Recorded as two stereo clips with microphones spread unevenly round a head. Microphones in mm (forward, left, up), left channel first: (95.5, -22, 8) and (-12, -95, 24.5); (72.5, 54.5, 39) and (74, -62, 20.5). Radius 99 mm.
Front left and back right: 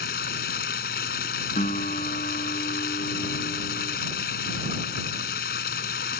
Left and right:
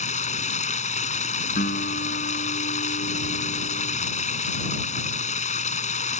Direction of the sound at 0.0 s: 75° left.